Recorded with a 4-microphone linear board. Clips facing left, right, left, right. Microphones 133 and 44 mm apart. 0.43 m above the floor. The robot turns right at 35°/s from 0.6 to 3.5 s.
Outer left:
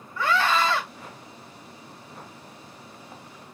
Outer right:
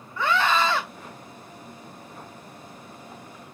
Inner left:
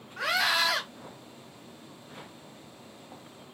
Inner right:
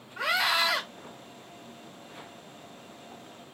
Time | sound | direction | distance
0.2 | a scream | 15° right (ahead or behind) | 1.1 m